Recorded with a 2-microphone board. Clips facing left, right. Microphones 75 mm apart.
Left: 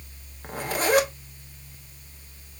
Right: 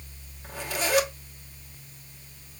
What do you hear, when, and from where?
0.4 s a zipper: 40° left (ahead or behind), 0.8 m